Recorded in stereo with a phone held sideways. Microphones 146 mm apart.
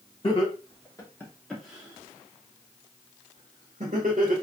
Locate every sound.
0.2 s laughter: 40° left (ahead or behind), 1.0 m; by 4.3 s 65° right (ahead or behind), 1.4 m